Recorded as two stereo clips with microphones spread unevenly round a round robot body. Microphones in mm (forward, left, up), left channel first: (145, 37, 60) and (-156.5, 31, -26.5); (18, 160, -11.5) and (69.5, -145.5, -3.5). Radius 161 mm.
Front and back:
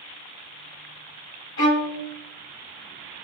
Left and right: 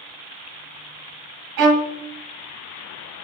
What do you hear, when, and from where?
1.6 s a violin: 55° right, 1.1 m